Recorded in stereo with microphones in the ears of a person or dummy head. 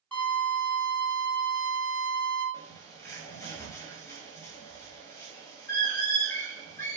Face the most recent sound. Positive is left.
turn(degrees=20)  # may be behind; listen again after turning